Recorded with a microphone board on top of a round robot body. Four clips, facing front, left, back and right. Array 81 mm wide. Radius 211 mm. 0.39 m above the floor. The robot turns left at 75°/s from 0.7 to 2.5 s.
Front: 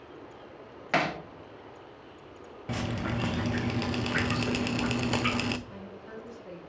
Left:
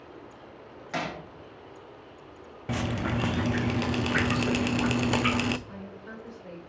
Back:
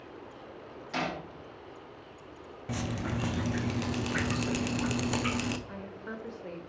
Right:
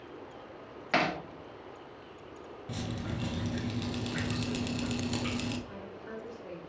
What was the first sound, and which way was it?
Hammering, 25° right.